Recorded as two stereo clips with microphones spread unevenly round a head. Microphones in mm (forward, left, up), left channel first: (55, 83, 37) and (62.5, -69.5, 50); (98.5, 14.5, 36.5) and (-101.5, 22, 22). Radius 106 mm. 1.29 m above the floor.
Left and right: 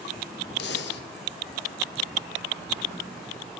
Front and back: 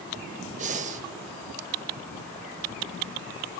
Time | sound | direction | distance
0.6 | breathing | 125° left | 0.7 m